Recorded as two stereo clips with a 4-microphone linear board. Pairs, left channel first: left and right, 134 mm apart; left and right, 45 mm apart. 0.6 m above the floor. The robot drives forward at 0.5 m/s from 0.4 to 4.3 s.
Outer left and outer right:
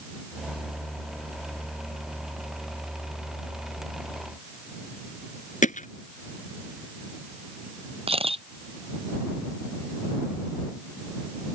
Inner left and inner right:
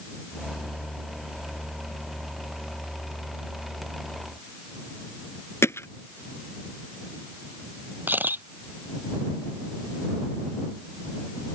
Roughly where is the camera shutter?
Right.